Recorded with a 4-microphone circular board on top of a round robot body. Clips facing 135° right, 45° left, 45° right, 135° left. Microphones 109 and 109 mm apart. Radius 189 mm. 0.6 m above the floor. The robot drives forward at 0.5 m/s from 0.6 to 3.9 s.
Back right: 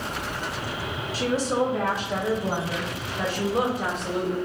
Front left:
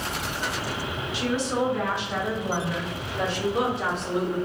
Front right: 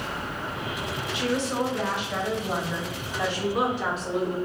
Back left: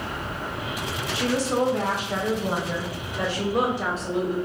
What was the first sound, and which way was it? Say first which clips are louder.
A woman speaking: back right 2 dB, back left 3 dB; straight behind.